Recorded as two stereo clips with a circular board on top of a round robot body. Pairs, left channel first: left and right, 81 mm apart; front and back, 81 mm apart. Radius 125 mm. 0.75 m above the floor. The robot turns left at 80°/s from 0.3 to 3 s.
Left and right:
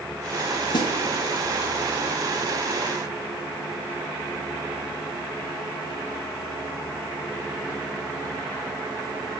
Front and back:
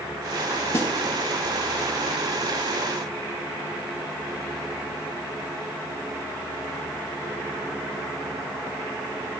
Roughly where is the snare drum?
Ahead left.